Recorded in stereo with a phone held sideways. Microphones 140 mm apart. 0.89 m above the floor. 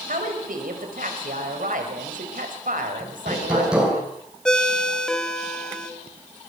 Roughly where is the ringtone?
Centre.